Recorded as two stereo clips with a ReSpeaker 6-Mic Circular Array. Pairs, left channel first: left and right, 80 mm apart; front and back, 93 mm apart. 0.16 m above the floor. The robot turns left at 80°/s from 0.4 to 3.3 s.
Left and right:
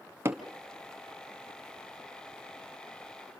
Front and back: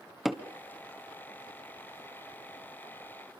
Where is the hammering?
95° right, 1.5 m.